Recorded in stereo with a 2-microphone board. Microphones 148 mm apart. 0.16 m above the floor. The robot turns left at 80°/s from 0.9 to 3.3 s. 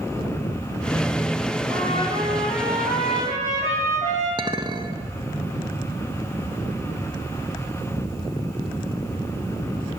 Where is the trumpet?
115° right, 7.5 m; by 4.3 s 115° left, 7.5 m.